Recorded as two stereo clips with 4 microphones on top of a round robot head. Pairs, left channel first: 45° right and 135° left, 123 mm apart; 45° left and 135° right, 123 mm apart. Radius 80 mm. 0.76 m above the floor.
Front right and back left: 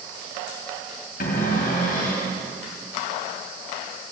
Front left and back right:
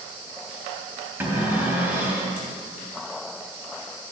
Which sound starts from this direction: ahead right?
A cupboard door, at 1.2 s.